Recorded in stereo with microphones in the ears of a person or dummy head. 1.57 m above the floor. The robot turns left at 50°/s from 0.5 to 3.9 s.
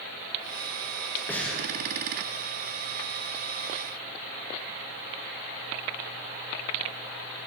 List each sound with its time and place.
1.3 s breathing: 10° left (ahead or behind), 1.0 m; by 1.6 s 10° right (ahead or behind), 1.0 m